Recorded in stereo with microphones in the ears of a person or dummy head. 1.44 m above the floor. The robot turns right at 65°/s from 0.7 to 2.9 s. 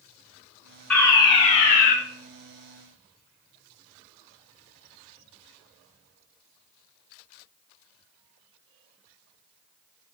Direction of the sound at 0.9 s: 15° left.